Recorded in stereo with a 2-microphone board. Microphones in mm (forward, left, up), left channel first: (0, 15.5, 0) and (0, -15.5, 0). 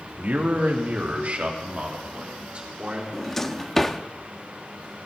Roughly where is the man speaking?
Right.